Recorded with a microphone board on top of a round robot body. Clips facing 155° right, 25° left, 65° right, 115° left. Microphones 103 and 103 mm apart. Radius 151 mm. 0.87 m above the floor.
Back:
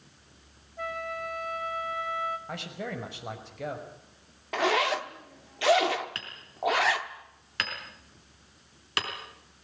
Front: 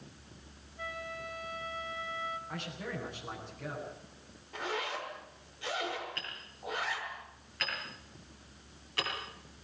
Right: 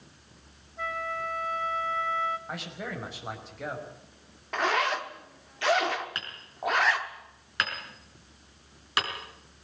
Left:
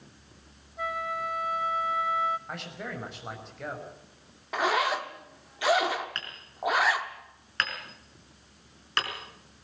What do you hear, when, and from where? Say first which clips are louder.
0.8 s a flute: back 7 dB, left 1 dB; 165° right, 1.7 m
2.5 s a man speaking: back 4 dB, right 1 dB; 155° right, 5.5 m
4.5 s a zipper: back 11 dB, left 1 dB; 165° right, 1.0 m
6.2 s hammering: back 8 dB, even; 150° right, 4.5 m